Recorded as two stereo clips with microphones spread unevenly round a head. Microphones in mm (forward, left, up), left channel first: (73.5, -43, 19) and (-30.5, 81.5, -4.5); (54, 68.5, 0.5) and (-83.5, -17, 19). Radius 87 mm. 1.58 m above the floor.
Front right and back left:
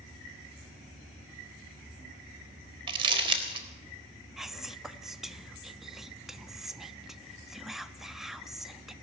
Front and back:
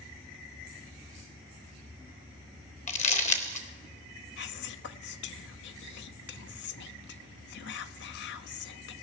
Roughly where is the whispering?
Ahead left.